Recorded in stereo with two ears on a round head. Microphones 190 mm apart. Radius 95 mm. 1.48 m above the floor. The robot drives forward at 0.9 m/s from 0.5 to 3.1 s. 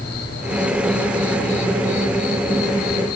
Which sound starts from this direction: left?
An insect, at 0.0 s.